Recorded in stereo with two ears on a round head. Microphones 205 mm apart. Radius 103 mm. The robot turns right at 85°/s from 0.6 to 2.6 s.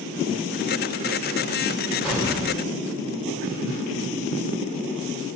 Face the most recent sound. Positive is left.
turn(degrees=-130)